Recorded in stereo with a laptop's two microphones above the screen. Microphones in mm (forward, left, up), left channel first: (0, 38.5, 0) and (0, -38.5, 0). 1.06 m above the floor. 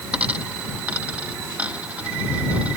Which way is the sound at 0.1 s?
15° right (ahead or behind).